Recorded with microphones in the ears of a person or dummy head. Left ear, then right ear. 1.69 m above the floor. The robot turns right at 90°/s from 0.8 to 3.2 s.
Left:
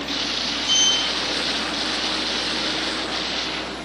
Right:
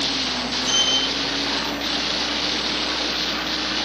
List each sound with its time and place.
0.6 s a sliding door: 60° right (ahead or behind), 2.0 m; by 3.8 s 80° left, 2.0 m